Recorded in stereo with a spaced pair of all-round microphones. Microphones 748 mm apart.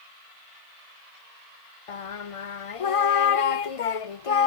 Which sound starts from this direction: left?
Singing, at 1.9 s.